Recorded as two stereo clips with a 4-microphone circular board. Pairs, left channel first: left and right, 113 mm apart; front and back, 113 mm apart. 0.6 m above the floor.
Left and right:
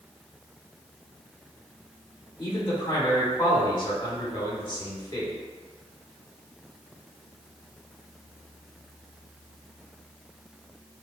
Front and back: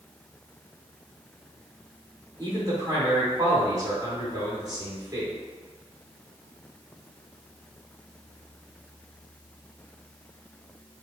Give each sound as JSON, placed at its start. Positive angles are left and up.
{"t": 2.4, "sound": "a man speaking", "azimuth_deg": 130, "distance_m": 1.8}